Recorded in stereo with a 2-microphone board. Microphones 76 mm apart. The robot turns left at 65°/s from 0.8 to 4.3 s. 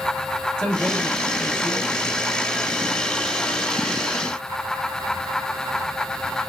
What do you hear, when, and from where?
0.6 s a man speaking: 5° left (ahead or behind), 1.3 m; by 2.1 s 20° right (ahead or behind), 1.3 m